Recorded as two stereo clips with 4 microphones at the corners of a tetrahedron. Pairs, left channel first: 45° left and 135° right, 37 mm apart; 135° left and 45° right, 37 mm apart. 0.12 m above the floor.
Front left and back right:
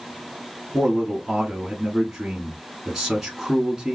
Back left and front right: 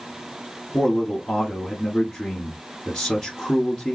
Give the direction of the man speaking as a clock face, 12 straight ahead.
7 o'clock.